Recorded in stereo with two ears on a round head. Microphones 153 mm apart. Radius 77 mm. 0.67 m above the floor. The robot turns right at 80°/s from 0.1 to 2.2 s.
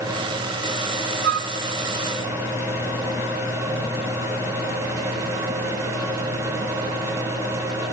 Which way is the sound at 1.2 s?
60° right (ahead or behind).